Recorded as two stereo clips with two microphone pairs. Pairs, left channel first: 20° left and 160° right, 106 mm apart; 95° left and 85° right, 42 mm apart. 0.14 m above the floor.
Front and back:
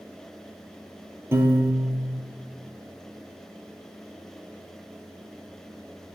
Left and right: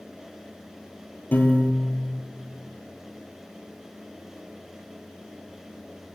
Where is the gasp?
I don't hear a gasp.